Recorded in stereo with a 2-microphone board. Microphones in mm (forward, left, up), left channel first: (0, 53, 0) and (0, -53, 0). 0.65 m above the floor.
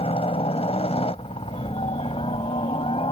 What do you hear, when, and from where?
0.0 s a helicopter: 65° left (ahead or behind); by 3.1 s 60° left (ahead or behind)